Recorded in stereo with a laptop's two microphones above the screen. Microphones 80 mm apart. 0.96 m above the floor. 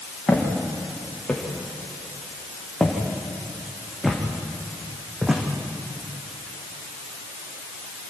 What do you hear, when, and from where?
0.3 s footsteps: 20° left (ahead or behind), 6 m; by 5.4 s 10° right (ahead or behind), 3.5 m